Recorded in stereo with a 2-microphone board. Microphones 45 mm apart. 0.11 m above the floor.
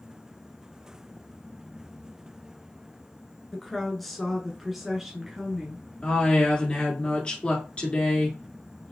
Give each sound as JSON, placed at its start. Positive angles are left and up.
{"t": 3.5, "sound": "a woman speaking", "side_deg": 5, "distance_m": 1.2}
{"t": 6.0, "sound": "a woman speaking", "side_deg": 25, "distance_m": 1.6}